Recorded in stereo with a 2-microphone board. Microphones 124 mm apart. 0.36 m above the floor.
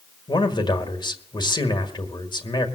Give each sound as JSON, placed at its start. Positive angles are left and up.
{"t": 0.3, "sound": "a man speaking", "side_deg": 40, "distance_m": 1.5}